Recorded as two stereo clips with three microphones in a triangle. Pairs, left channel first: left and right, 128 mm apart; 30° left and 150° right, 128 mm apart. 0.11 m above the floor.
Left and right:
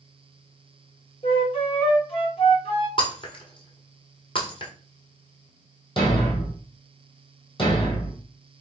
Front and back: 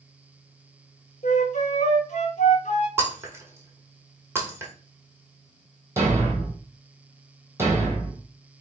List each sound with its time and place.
1.2 s a flute: 50° left, 1.1 m
3.0 s breaking glass: 140° left, 1.0 m
6.0 s a thud: 140° left, 1.7 m